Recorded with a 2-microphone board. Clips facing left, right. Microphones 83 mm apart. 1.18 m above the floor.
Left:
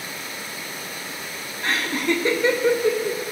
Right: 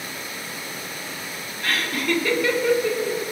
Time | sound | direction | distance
1.6 | laughter | 25° left (ahead or behind) | 0.9 m